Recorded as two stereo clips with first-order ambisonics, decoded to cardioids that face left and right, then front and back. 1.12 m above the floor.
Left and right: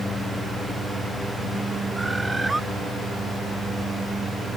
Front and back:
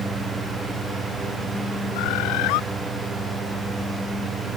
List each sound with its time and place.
1.9 s a bird: 5° right